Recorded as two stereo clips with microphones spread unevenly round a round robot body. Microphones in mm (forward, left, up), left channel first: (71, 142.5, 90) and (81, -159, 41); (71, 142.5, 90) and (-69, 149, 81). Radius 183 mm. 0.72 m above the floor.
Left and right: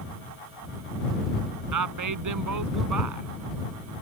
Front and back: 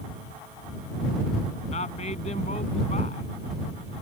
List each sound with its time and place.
1.7 s a woman speaking: 65° right